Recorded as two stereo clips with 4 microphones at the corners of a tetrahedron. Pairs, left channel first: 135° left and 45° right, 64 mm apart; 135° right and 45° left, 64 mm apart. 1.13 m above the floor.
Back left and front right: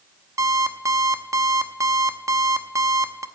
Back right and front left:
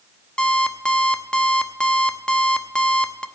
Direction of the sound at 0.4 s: 60° right.